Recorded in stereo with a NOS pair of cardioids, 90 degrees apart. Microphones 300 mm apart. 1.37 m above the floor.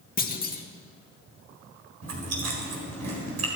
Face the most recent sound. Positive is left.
turn(degrees=-55)